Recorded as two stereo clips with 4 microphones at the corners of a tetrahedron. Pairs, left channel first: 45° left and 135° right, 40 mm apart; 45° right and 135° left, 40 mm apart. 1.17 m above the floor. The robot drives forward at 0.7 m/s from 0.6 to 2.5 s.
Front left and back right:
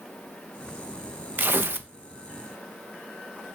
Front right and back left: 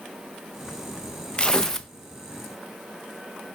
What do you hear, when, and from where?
1.4 s tearing paper: 110° right, 0.8 m; by 1.9 s 130° right, 1.0 m